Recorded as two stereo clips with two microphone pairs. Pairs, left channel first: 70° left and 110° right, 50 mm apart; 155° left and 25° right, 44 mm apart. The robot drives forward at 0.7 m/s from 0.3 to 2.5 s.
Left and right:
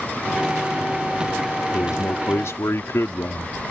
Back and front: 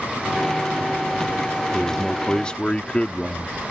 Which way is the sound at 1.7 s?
75° left.